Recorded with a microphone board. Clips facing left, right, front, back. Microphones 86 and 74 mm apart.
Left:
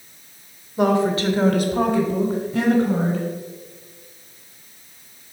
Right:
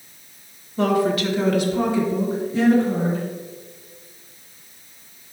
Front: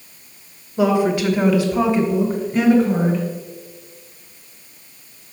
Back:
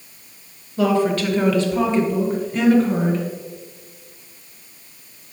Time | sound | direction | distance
0.8 | a woman speaking | 35° left | 0.9 m